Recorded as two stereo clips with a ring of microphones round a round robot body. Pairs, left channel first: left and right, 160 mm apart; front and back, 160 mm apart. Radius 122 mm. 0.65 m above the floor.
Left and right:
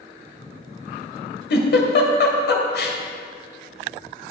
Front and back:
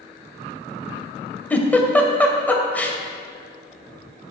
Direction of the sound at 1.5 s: 80° left.